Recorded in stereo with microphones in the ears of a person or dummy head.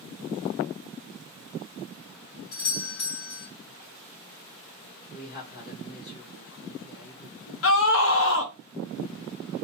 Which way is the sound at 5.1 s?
50° left (ahead or behind).